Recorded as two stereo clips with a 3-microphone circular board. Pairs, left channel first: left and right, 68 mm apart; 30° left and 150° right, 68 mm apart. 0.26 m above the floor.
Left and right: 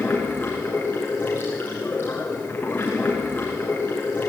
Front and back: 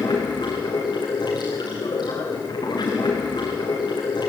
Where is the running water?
25° left, 4 m.